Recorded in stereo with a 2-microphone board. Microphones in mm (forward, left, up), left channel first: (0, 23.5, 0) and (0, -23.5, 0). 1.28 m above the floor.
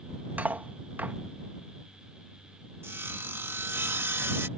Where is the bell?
No bell in this recording.